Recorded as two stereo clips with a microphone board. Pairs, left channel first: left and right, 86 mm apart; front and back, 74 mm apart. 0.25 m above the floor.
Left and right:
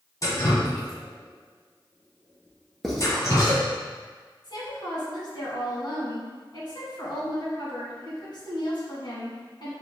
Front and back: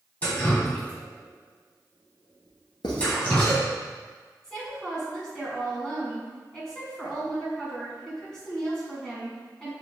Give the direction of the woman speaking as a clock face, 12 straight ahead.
9 o'clock.